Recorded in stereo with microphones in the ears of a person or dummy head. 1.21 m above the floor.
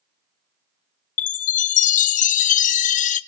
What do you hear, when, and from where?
1.2 s a chime: 40° left (ahead or behind), 0.7 m